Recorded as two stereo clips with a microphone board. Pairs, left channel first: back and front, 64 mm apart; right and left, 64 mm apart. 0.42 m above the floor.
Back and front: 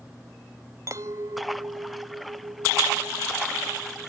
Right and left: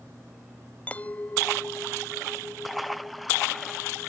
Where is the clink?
25° right.